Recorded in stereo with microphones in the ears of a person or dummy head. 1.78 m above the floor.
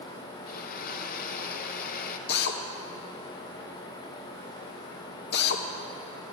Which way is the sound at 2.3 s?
55° left (ahead or behind).